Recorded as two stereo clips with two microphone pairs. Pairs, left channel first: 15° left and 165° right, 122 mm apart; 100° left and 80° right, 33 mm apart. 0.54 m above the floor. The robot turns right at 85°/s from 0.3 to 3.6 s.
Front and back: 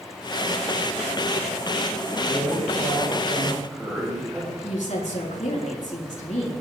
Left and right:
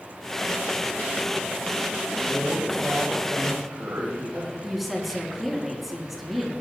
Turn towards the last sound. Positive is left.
turn(degrees=10)